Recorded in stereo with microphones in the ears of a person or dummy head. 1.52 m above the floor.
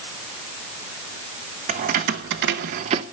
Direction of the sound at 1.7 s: 40° right (ahead or behind).